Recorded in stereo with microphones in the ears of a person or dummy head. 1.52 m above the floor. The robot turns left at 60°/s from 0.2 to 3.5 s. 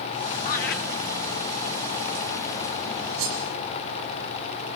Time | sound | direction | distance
0.5 | laughter | 50° left (ahead or behind) | 2.5 m
3.2 | cutlery clinking | 75° right (ahead or behind) | 6.5 m